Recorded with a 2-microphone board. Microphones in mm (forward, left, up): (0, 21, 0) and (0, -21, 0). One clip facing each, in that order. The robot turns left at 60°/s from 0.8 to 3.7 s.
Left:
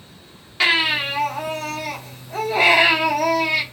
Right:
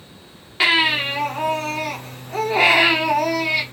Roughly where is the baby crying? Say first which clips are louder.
Right 1 dB; ahead.